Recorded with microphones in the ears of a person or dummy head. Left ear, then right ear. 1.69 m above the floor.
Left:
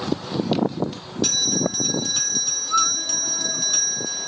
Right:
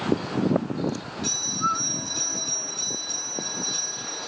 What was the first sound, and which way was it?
A bell, 35° left (ahead or behind).